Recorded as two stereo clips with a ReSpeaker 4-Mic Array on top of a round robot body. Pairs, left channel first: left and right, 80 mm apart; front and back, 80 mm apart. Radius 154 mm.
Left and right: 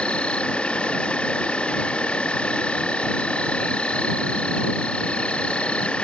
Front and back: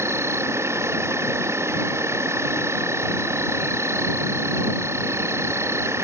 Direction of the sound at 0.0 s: 160° left.